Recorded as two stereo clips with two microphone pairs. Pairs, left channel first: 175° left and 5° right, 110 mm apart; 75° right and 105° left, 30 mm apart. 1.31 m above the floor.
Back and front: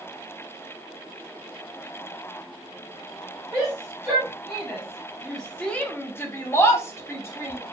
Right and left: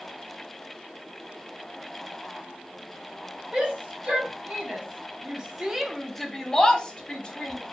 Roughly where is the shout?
Left.